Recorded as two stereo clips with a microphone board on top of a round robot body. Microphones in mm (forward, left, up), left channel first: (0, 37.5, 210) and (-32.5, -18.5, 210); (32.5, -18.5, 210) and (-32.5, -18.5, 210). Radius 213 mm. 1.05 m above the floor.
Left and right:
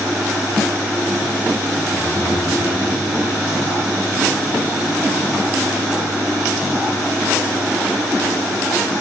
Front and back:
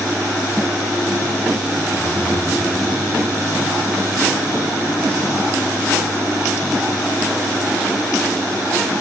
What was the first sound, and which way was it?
Breathing, 100° left.